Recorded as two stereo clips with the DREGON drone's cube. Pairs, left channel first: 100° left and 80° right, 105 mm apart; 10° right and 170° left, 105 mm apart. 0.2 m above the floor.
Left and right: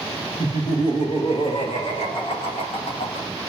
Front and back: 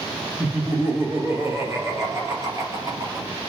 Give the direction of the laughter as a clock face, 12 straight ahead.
9 o'clock.